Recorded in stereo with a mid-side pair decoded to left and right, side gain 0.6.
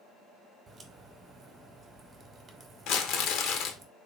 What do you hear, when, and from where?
0.7 s a crack: 30° right, 0.9 m
2.9 s crumpling: 65° left, 0.7 m